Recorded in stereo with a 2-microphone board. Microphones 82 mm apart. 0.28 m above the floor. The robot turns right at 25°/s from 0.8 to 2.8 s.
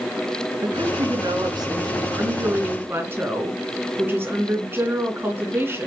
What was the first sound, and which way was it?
A woman speaking, 80° right.